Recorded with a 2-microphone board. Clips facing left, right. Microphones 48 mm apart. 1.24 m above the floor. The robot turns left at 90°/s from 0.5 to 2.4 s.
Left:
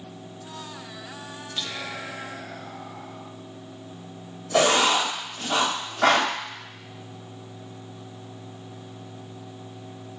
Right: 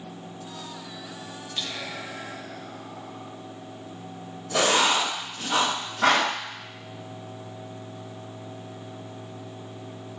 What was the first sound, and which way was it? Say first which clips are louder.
Whispering: left 1 dB; 175° right.